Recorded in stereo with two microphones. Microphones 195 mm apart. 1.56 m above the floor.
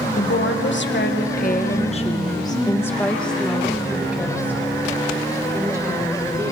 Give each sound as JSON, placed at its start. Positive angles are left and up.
{"t": 0.2, "sound": "a woman speaking", "side_deg": 80, "distance_m": 1.7}